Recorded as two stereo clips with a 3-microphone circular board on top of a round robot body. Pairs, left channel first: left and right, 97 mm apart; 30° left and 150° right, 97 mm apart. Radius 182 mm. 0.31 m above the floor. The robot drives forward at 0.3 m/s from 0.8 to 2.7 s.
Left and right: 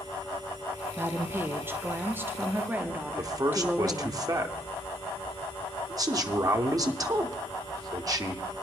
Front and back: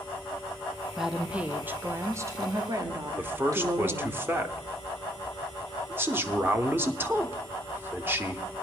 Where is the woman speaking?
70° right, 0.9 m; by 4.2 s 145° right, 1.0 m.